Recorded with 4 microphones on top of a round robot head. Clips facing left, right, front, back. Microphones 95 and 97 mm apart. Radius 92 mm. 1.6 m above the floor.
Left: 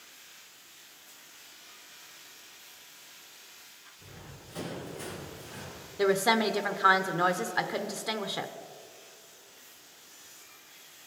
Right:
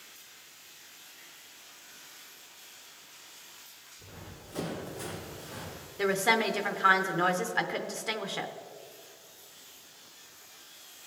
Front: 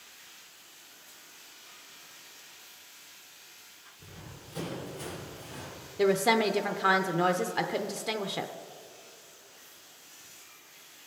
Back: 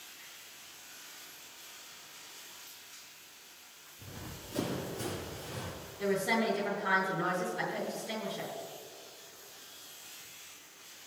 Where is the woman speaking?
15° left, 0.7 m.